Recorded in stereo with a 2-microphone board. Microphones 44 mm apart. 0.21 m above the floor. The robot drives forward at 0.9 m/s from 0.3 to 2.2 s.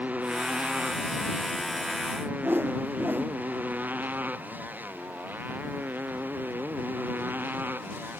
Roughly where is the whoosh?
Right.